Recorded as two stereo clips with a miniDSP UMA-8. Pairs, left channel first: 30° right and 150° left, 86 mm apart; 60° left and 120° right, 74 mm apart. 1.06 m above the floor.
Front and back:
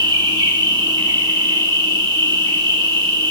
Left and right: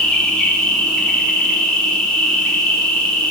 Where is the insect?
140° left, 2 m.